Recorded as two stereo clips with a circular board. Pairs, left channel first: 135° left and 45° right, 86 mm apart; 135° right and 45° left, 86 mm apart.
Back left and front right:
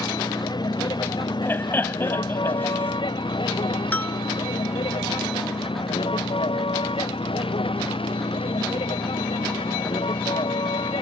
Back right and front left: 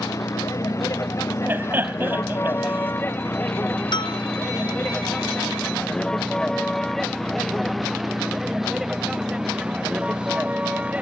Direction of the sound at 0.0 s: 170° left.